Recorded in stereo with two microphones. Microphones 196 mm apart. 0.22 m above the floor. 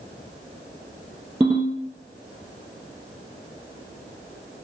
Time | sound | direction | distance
1.4 | a ringtone | 5° right (ahead or behind) | 1.9 m